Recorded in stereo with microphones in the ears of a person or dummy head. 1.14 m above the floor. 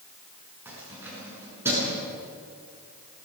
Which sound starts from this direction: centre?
Keys jangling, at 0.7 s.